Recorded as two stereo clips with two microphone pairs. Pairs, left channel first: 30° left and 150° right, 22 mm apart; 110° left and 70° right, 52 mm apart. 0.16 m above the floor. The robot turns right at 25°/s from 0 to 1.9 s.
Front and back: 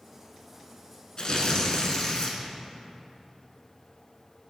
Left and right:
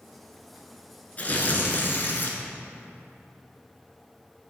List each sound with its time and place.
1.2 s tearing paper: 60° left, 0.8 m; by 2.4 s 80° left, 0.8 m